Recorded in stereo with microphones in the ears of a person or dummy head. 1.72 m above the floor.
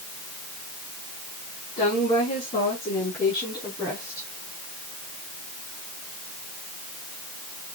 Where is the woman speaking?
35° left (ahead or behind), 6 m; by 4.3 s 15° left (ahead or behind), 5 m.